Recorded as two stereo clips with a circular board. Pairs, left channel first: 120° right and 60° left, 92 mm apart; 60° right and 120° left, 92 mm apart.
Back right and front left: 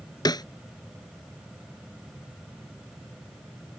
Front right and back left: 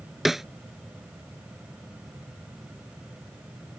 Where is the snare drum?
155° right.